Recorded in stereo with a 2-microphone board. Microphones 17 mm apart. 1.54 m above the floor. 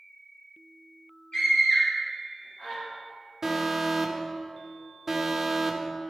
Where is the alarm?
20° right (ahead or behind), 0.6 m.